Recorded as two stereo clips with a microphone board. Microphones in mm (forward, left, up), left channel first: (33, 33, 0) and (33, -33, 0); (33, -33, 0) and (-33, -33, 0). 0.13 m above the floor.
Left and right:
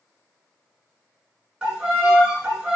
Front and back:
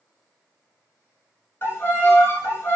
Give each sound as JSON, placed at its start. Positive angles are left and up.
{"t": 1.6, "sound": "a violin", "azimuth_deg": -15, "distance_m": 1.2}